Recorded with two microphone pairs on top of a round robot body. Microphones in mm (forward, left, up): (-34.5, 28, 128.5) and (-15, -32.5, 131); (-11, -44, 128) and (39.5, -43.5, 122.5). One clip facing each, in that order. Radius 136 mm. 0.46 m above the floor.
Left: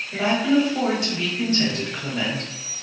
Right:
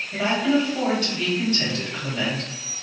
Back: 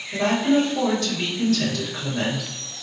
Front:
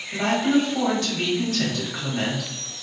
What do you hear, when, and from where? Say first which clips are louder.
0.1 s a woman speaking: left 2 dB, back 1 dB; 40° left, 1.8 m